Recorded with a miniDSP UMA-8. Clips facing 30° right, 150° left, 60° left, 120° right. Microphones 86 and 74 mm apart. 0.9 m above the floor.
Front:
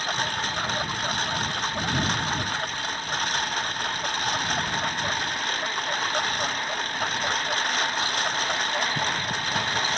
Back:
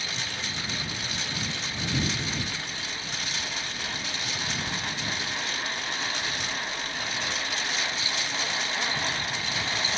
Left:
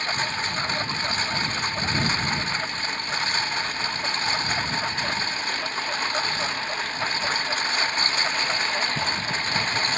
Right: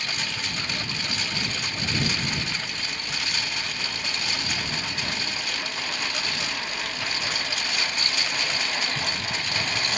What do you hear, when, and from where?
0.0 s a lawn mower: 5° left